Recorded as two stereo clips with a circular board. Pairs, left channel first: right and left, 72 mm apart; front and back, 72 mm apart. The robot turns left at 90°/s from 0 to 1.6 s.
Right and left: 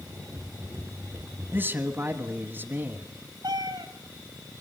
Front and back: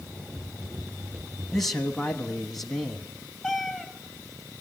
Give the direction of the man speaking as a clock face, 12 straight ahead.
9 o'clock.